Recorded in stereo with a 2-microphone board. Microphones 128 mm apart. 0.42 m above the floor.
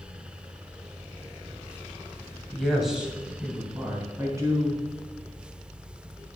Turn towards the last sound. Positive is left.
turn(degrees=-25)  # may be behind; listen again after turning